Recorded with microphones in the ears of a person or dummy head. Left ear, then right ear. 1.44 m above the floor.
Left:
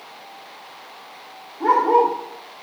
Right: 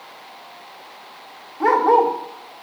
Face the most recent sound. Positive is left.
turn(degrees=-55)  # may be behind; listen again after turning